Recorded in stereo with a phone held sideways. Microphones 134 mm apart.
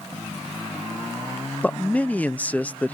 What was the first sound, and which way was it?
A man speaking, 10° left (ahead or behind).